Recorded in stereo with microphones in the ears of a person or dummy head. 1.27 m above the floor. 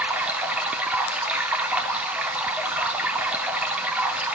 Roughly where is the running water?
Centre.